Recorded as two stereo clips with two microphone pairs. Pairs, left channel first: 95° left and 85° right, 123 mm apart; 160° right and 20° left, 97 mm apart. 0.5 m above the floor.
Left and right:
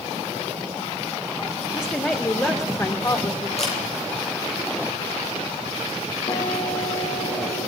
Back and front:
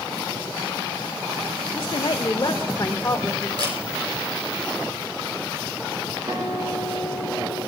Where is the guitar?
65° left, 9 m.